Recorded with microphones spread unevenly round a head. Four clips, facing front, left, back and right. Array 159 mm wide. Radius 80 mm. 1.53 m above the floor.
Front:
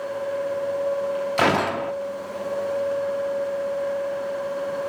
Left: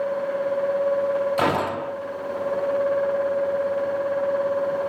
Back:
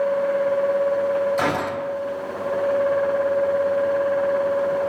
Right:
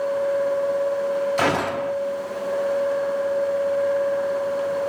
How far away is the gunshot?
About 1.1 m.